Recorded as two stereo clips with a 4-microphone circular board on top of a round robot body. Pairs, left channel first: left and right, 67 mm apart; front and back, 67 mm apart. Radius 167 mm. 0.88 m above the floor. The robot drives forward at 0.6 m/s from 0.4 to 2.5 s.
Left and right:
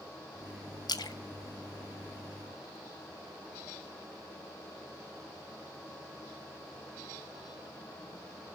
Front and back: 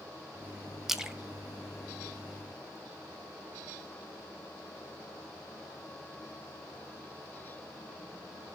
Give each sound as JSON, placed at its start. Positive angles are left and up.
{"t": 0.9, "sound": "a splash", "azimuth_deg": 90, "distance_m": 1.2}